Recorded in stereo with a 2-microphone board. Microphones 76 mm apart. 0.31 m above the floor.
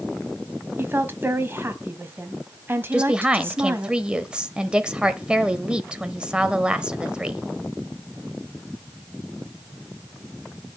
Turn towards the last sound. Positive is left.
turn(degrees=-15)  # may be behind; listen again after turning